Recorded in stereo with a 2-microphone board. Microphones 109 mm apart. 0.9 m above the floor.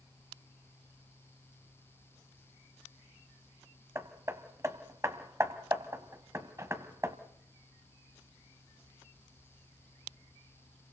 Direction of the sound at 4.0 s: 25° right (ahead or behind).